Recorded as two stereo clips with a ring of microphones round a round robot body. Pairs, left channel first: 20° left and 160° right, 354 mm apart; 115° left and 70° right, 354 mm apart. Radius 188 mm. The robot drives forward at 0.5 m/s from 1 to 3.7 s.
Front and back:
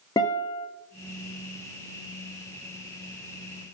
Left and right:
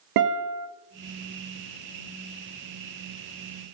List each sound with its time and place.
0.2 s a guitar: 55° right, 0.8 m